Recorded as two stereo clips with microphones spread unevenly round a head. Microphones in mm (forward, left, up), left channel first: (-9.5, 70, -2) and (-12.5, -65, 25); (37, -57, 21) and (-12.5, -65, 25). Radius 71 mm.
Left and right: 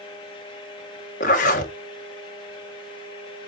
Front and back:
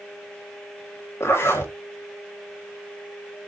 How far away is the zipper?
About 2.5 m.